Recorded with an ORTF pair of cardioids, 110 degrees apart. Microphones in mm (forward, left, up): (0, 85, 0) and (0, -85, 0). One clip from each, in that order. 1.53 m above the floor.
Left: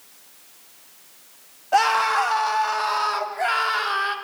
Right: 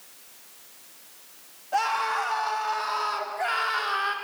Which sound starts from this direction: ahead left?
A scream, at 1.7 s.